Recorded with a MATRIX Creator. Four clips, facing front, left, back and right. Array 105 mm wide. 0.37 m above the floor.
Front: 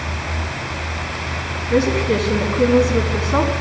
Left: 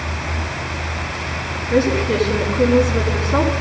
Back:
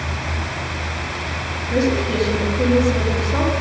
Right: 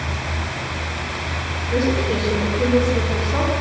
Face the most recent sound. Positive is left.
turn(degrees=20)